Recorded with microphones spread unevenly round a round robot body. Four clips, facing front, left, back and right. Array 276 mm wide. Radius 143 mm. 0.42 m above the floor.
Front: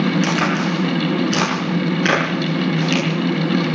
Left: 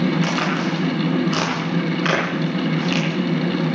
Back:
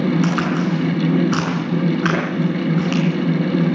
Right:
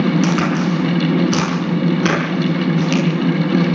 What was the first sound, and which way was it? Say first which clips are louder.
A crack: right 5 dB, even; 105° right.